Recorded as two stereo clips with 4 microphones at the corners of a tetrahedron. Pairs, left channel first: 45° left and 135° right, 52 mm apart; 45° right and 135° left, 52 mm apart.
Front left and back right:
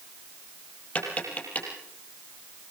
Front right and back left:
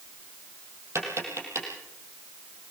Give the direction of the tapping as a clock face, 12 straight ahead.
8 o'clock.